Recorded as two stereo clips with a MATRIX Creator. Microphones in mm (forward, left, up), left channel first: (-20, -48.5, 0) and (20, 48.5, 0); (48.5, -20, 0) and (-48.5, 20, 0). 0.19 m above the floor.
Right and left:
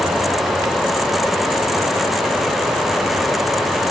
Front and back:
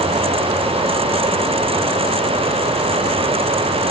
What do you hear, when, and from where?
Only background noise.